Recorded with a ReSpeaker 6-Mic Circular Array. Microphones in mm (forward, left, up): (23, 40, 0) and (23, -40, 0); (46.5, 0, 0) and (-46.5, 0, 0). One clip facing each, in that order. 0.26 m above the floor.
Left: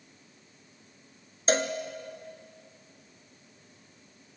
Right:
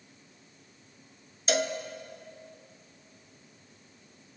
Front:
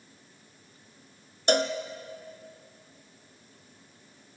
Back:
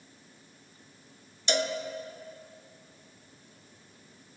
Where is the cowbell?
35° left, 1.3 m.